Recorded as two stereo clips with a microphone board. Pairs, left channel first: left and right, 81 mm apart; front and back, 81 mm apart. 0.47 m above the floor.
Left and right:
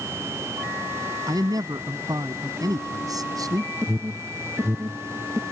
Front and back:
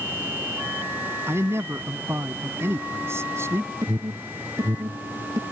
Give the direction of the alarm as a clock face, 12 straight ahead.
5 o'clock.